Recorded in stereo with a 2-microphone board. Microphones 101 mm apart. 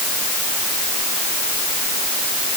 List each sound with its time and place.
Only background noise.